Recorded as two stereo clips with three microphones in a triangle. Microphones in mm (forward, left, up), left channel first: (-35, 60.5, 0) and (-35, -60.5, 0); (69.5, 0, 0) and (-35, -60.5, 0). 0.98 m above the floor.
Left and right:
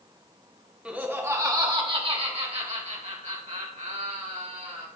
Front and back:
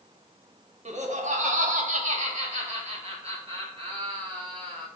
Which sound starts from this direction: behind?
Laughter, at 0.8 s.